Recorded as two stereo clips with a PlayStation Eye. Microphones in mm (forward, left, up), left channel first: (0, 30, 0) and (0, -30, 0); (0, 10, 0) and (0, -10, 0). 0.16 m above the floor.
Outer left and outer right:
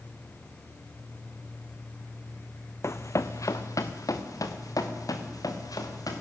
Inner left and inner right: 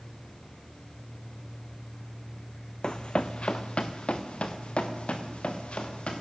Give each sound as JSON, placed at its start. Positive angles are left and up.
{"t": 2.8, "sound": "running footsteps", "side_deg": 50, "distance_m": 0.8}